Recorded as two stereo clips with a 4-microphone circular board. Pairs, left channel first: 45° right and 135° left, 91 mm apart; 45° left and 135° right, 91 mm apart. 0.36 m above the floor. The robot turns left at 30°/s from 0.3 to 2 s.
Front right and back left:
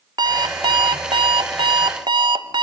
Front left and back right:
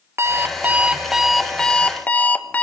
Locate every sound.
0.2 s an alarm clock: 165° left, 1.1 m; by 2.6 s 115° left, 1.1 m